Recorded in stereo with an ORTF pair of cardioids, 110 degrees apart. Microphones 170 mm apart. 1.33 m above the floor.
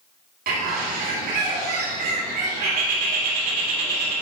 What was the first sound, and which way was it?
A bird, 65° right.